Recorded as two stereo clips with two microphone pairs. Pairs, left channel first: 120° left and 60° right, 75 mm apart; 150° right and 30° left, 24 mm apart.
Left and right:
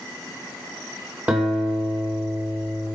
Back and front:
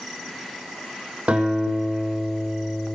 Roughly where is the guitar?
Ahead.